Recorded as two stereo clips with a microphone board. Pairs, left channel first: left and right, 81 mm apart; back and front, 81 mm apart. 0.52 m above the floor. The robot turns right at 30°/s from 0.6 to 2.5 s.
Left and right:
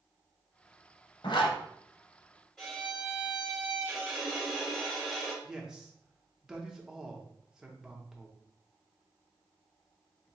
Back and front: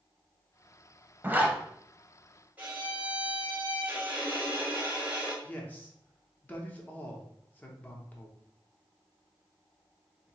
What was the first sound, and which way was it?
A zipper, 65° left.